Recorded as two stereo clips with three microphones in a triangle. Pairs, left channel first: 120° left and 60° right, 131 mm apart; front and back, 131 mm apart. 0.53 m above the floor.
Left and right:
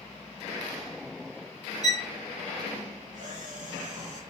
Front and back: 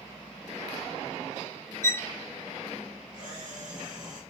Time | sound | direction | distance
1.8 | a violin | 70° right | 0.7 m
3.1 | a camera shutter | 45° right | 4 m